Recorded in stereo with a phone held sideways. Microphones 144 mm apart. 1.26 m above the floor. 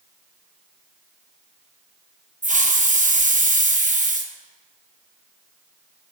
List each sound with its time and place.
2.4 s a hiss: 60° right (ahead or behind), 0.8 m